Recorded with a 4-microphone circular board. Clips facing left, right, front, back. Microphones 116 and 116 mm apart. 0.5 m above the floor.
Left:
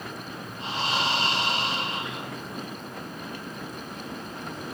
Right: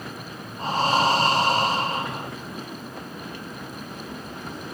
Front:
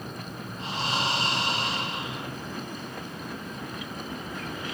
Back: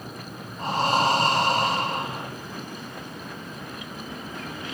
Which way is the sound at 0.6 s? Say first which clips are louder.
Right 8 dB, back 8 dB; 135° right.